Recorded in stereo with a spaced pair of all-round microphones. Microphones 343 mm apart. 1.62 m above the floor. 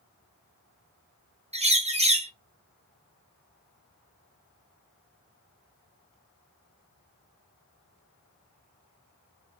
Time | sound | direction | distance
1.5 | a bird | 20° right (ahead or behind) | 0.6 m